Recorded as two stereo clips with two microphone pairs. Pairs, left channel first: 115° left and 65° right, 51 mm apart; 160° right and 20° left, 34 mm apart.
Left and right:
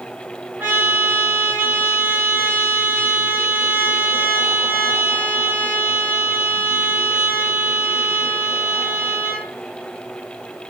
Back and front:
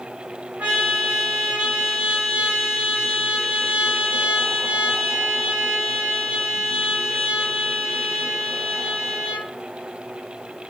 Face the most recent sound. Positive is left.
turn(degrees=-10)